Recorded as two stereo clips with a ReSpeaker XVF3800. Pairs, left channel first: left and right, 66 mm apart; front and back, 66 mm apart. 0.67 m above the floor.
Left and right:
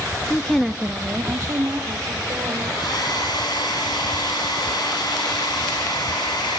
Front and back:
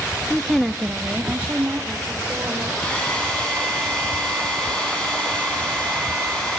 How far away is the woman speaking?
About 0.8 m.